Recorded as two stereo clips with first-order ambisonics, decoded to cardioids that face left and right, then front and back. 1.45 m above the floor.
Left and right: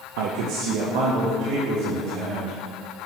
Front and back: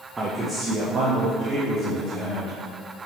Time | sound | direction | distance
0.2 | a man speaking | 100° right | 0.7 m